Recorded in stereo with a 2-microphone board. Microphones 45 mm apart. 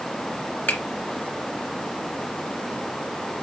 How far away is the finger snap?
About 2.5 m.